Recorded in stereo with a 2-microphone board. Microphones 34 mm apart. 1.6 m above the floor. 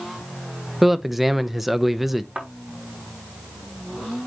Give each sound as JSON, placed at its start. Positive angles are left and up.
{"t": 0.8, "sound": "a man speaking", "side_deg": -5, "distance_m": 0.8}
{"t": 2.4, "sound": "a thud", "side_deg": -35, "distance_m": 4.5}